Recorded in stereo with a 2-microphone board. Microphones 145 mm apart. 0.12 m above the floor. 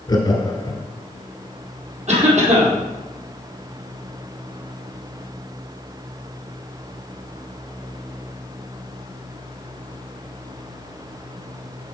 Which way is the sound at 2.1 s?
50° right (ahead or behind).